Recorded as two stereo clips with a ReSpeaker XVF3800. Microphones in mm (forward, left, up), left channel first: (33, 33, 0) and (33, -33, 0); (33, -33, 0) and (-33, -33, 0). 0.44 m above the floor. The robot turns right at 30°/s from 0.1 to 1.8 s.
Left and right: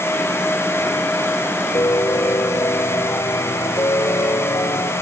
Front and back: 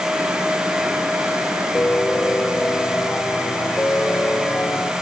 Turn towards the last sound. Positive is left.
turn(degrees=60)